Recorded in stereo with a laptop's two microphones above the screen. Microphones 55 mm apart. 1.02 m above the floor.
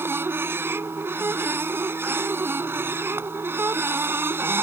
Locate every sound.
0.0 s a machine running: 40° right (ahead or behind)